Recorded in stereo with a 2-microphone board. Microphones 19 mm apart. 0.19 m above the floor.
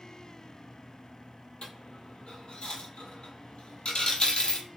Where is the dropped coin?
60° left (ahead or behind), 0.6 m.